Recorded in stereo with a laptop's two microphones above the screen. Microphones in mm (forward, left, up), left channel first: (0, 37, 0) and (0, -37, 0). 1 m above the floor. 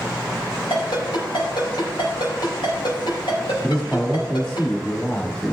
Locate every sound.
0.7 s a ringtone: 85° left, 4.5 m
3.6 s a man speaking: 10° left (ahead or behind), 1.7 m